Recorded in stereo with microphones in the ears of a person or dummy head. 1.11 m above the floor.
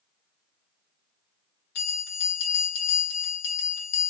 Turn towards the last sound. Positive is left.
turn(degrees=65)  # may be behind; listen again after turning